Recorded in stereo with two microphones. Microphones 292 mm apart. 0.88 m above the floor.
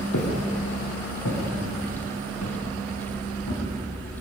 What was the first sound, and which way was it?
Footsteps, 80° left.